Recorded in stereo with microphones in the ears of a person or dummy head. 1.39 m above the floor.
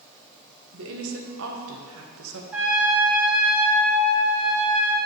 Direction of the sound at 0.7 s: 75° right (ahead or behind).